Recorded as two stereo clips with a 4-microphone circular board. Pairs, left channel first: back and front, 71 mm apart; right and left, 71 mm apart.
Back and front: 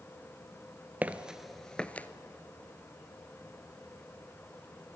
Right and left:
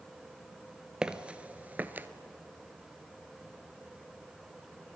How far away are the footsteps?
About 1.0 m.